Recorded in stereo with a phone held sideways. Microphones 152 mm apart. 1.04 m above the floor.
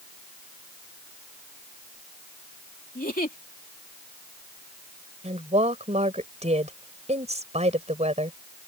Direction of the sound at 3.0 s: 75° left (ahead or behind).